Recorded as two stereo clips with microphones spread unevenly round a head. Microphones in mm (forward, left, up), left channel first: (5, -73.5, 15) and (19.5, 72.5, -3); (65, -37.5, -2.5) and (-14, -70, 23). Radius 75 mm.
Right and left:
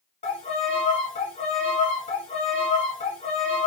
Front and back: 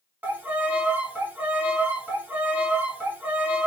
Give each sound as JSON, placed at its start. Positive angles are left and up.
{"t": 0.2, "sound": "a violin", "azimuth_deg": -110, "distance_m": 1.4}